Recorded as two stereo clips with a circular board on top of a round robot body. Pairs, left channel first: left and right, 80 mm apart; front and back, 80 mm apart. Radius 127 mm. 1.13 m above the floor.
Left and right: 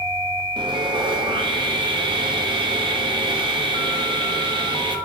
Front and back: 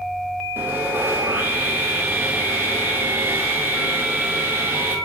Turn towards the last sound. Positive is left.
turn(degrees=-115)